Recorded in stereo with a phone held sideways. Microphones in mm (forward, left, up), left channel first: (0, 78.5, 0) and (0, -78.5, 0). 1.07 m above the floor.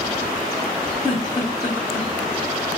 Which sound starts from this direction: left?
A giggle, at 1.0 s.